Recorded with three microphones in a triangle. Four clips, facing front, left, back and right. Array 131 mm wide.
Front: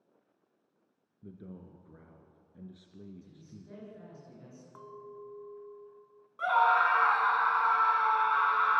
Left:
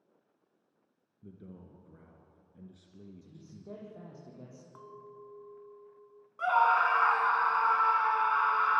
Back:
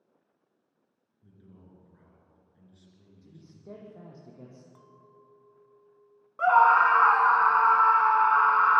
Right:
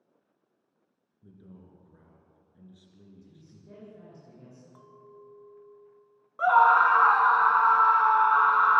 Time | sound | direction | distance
1.2 | a man speaking | 20° left | 3 m
3.2 | a man speaking | 145° left | 10 m
4.8 | a clink | 30° left | 1.3 m
6.4 | a scream | 135° right | 1.4 m